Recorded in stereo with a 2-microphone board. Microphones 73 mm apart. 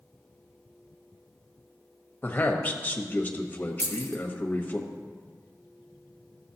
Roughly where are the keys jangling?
Right.